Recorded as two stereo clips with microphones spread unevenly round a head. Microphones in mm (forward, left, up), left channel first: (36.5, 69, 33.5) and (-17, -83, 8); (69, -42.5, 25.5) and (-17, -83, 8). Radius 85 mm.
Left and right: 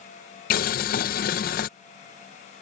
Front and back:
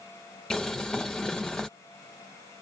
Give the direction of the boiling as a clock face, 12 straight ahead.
8 o'clock.